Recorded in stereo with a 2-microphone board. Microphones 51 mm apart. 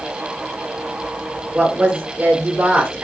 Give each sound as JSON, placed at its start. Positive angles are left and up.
{"t": 1.5, "sound": "a woman speaking", "side_deg": -20, "distance_m": 1.4}